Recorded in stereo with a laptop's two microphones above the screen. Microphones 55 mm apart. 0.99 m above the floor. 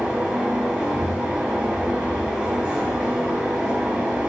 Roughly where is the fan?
Right.